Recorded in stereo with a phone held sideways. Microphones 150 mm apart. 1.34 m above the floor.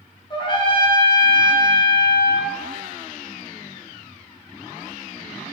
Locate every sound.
0.3 s a trumpet: 30° left (ahead or behind), 0.8 m